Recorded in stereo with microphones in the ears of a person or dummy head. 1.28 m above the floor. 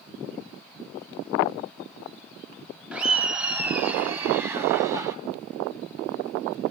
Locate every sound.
2.9 s laughter: 5° right (ahead or behind), 3 m; by 5.2 s 15° right (ahead or behind), 4.5 m